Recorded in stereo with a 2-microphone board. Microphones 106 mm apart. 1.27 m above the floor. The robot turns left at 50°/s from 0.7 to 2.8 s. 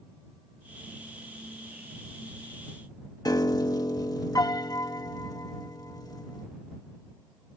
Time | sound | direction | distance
3.2 | a piano | 40° left (ahead or behind) | ?